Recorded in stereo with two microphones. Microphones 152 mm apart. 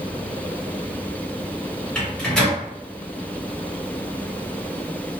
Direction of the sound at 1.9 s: 5° left (ahead or behind).